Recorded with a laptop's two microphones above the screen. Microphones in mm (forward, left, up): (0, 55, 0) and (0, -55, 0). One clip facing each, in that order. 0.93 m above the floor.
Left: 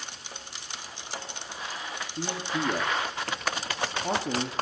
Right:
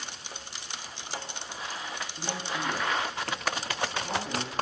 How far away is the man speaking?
About 1.7 m.